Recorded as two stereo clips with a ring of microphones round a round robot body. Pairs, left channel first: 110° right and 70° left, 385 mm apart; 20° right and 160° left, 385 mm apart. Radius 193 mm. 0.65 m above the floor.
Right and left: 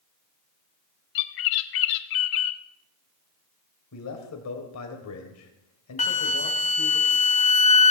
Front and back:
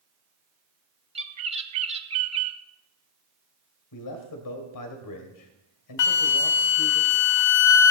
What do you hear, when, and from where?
1.1 s a bird: 130° right, 0.6 m
3.9 s a man speaking: 65° right, 2.5 m
6.0 s a flute: 45° right, 0.6 m